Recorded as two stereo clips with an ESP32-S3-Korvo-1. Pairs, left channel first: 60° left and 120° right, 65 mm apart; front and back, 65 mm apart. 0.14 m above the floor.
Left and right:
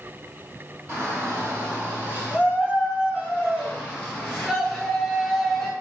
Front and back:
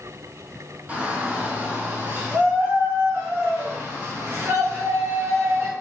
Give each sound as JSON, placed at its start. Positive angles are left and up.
{"t": 0.9, "sound": "a shout", "azimuth_deg": -130, "distance_m": 1.9}